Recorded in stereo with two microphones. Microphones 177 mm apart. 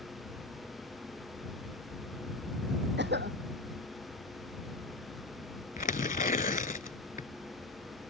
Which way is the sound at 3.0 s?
80° right.